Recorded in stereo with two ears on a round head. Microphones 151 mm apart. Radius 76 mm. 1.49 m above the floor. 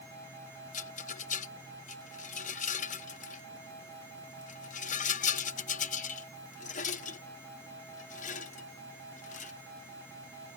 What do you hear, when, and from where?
0.7 s a rattle: 45° left (ahead or behind)